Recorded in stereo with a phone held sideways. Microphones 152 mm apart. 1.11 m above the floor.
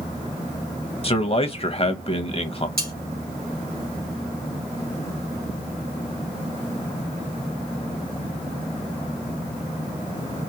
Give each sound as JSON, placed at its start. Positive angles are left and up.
{"t": 1.0, "sound": "a man speaking", "side_deg": 40, "distance_m": 0.8}
{"t": 2.8, "sound": "cutlery clinking", "side_deg": -80, "distance_m": 2.0}